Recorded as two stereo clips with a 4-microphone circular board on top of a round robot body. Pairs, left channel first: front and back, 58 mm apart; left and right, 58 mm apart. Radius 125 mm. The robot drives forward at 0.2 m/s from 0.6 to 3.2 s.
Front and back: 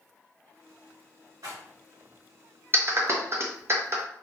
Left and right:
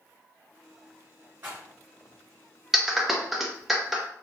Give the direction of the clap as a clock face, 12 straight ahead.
6 o'clock.